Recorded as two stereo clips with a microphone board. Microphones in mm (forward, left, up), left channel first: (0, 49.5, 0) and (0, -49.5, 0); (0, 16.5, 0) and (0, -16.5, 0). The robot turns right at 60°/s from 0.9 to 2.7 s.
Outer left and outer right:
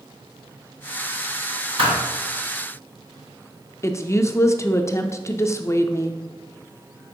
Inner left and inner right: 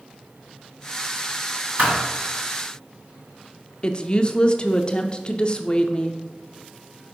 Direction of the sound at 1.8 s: 65° right (ahead or behind).